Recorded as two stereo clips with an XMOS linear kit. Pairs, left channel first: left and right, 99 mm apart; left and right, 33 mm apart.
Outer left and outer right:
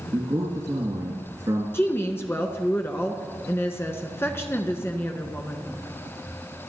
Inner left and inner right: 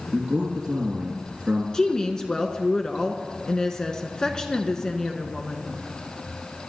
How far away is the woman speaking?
About 1.2 m.